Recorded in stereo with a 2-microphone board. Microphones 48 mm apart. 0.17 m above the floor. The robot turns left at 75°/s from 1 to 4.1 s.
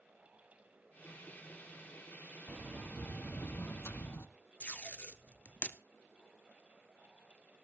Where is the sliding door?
165° right, 0.7 m; by 4.3 s 70° left, 0.7 m.